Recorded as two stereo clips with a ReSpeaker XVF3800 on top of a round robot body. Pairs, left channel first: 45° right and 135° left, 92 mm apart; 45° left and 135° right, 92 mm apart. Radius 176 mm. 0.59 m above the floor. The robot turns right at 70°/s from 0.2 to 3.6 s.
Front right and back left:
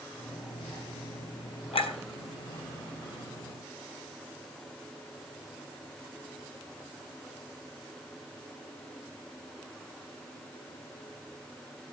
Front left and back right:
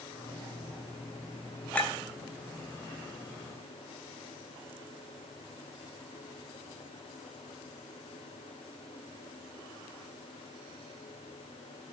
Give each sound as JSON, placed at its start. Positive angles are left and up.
{"t": 1.7, "sound": "a clink", "azimuth_deg": -35, "distance_m": 3.5}